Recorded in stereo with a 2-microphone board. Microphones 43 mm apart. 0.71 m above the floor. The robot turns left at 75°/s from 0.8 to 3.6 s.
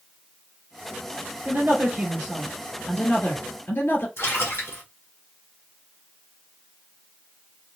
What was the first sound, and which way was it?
A woman speaking, 105° right.